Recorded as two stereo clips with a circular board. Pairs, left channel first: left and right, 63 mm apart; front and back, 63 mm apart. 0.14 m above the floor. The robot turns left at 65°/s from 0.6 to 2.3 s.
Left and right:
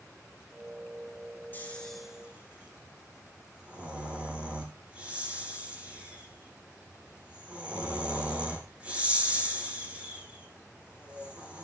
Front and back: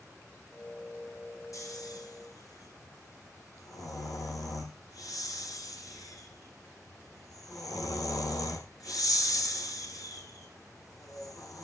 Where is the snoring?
30° left, 3.5 m; by 11.6 s 20° right, 3.5 m.